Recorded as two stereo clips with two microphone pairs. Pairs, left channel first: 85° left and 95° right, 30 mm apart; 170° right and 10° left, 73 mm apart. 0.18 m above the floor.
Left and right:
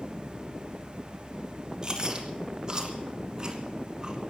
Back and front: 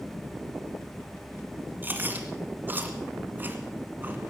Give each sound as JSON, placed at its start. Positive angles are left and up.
{"t": 1.8, "sound": "chewing", "azimuth_deg": -40, "distance_m": 2.0}